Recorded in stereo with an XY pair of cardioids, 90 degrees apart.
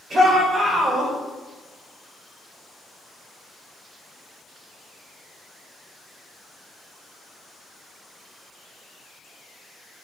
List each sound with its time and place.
0.1 s a shout: 60° right, 6.5 m; by 1.1 s 50° right, 7 m